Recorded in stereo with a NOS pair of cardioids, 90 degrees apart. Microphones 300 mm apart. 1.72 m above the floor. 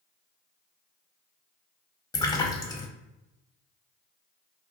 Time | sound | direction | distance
2.1 | a splash | 10° left | 0.6 m